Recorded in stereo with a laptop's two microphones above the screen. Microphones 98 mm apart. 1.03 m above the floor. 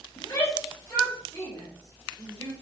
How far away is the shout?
About 2.5 m.